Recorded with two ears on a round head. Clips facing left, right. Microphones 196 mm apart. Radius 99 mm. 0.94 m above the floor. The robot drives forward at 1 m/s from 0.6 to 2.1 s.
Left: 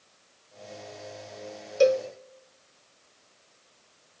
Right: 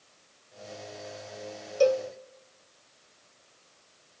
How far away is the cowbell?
About 1.6 m.